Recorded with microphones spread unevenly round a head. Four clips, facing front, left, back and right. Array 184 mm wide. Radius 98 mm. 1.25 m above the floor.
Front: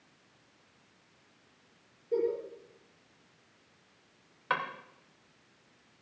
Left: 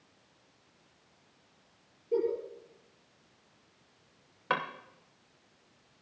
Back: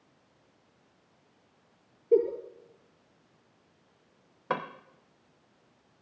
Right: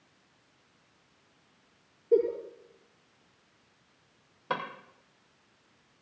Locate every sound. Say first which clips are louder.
2.1 s a giggle: right 5 dB, back 6 dB; 155° right, 6.5 m
4.5 s a drawer: left 2 dB, back 1 dB; 175° left, 0.7 m